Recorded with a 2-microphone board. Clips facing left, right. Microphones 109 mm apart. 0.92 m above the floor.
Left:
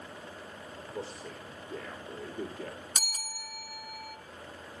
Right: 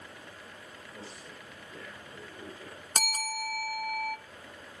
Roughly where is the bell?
Right.